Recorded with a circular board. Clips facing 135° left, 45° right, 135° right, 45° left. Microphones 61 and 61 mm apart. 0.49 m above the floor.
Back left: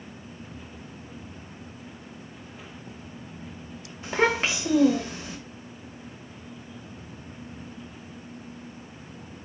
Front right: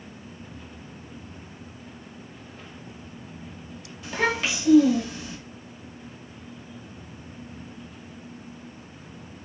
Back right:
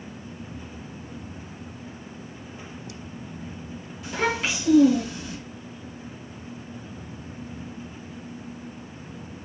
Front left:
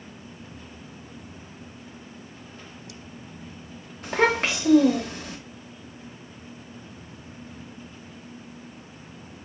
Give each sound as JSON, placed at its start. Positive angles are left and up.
{"t": 4.0, "sound": "a child speaking", "azimuth_deg": 80, "distance_m": 1.2}